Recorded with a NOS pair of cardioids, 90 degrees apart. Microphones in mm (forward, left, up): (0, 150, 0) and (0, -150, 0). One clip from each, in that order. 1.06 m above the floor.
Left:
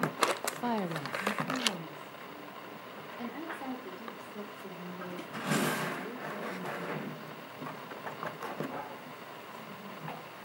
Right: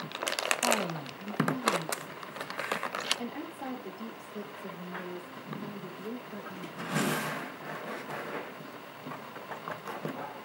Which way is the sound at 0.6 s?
15° left.